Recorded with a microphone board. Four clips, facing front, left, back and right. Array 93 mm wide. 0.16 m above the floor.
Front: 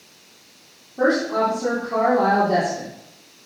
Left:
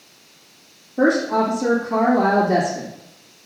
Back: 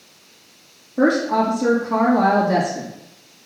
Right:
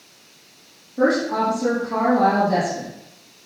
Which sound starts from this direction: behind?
A woman speaking, at 1.0 s.